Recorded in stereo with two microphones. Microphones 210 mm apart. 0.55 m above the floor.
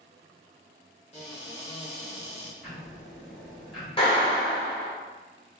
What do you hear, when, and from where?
1.1 s a cupboard door: 30° left (ahead or behind), 0.8 m
2.6 s ticking: centre (ahead or behind), 1.1 m
4.0 s a clap: 25° left (ahead or behind), 0.9 m